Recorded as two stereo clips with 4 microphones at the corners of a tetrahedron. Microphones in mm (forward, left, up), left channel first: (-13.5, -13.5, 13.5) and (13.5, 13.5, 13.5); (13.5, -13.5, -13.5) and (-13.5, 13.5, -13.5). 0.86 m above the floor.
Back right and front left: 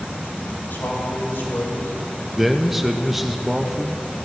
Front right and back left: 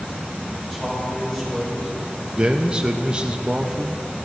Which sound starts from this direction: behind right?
A man speaking, at 0.7 s.